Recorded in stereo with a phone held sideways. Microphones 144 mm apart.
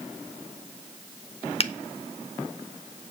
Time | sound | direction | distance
1.6 | a finger snap | 40° left (ahead or behind) | 0.8 m